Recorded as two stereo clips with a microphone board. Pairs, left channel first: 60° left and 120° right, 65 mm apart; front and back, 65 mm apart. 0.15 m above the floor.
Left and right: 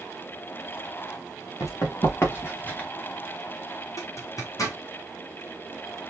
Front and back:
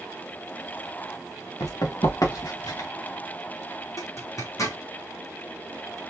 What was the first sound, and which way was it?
Running footsteps, 25° left.